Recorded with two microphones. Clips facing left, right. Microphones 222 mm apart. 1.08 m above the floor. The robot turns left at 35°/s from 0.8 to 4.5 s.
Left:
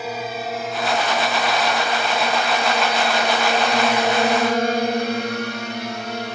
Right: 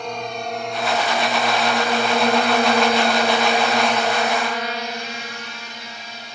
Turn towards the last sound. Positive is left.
turn(degrees=70)  # may be behind; listen again after turning